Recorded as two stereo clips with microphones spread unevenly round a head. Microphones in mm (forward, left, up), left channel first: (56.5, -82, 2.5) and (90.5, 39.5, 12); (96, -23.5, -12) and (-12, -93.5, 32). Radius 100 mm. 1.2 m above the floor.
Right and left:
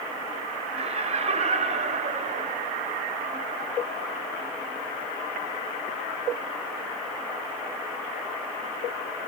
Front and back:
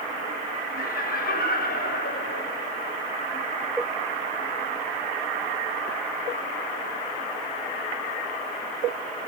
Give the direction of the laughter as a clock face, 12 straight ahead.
11 o'clock.